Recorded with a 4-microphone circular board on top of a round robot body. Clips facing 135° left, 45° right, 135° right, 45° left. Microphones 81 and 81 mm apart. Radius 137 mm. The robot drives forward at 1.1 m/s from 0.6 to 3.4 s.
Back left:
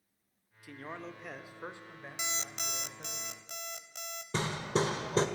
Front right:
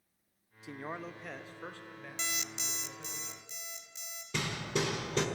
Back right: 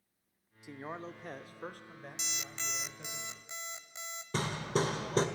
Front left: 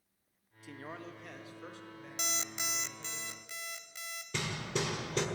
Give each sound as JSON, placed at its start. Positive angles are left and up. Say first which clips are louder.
{"t": 0.6, "sound": "a man speaking", "louder": "front right 2 dB, back right 3 dB", "azimuth_deg": -80, "distance_m": 1.1}
{"t": 2.2, "sound": "an alarm clock", "louder": "back left 1 dB, front left 5 dB", "azimuth_deg": 60, "distance_m": 0.6}
{"t": 4.3, "sound": "hammering", "louder": "back left 3 dB, back right 4 dB", "azimuth_deg": 180, "distance_m": 1.8}